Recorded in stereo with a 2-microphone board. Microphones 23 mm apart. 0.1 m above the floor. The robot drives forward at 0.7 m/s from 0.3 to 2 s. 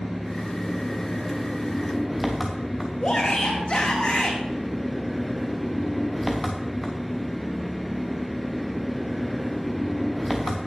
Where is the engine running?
5° right (ahead or behind), 4.5 m; by 10.7 s 10° right (ahead or behind), 3.5 m.